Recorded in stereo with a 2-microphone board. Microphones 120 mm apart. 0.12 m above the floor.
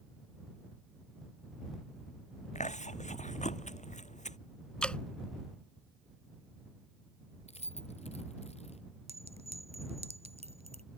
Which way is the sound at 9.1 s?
60° right (ahead or behind).